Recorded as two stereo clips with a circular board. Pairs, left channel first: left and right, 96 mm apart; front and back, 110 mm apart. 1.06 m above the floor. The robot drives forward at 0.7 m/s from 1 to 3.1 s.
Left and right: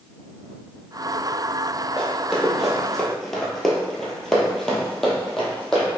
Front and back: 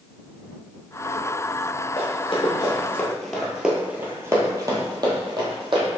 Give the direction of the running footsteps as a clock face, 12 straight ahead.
12 o'clock.